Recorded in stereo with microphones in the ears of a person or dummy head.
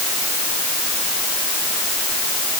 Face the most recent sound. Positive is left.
No sound to turn to.